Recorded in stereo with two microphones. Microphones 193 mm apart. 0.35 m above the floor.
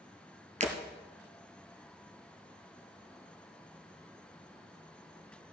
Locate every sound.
0.6 s breaking glass: 40° right (ahead or behind), 1.6 m